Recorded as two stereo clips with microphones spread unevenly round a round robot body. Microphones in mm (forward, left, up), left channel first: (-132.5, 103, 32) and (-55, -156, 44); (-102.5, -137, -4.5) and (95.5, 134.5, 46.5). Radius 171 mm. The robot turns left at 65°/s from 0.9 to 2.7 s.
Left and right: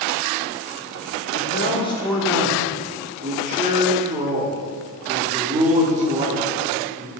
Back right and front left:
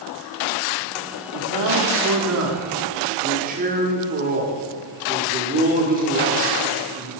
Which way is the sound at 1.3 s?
75° left.